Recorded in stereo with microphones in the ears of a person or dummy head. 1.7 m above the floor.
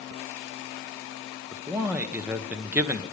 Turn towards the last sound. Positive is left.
turn(degrees=-10)  # may be behind; listen again after turning